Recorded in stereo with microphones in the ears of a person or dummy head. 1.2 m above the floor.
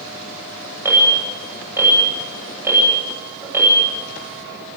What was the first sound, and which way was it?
An alarm, 15° right (ahead or behind).